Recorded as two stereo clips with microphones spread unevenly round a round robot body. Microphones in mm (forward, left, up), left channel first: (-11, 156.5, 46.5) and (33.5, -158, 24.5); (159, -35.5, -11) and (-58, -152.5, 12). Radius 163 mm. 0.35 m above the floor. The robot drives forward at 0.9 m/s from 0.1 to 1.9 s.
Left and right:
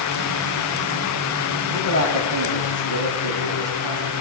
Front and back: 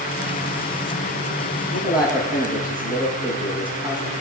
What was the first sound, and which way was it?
A man speaking, 65° right.